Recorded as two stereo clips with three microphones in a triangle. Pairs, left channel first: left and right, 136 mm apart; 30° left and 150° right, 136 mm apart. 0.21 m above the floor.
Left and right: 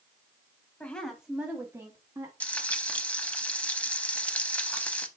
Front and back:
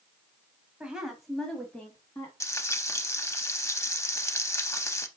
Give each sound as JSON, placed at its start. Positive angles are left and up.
{"t": 0.8, "sound": "a woman speaking", "azimuth_deg": 145, "distance_m": 1.1}
{"t": 2.4, "sound": "frying", "azimuth_deg": 30, "distance_m": 0.5}